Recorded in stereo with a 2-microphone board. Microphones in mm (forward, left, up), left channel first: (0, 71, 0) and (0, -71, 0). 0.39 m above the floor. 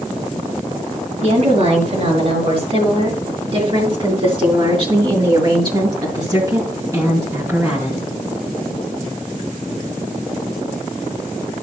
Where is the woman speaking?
50° right (ahead or behind), 6.5 m; by 8.0 s 15° right (ahead or behind), 3.5 m.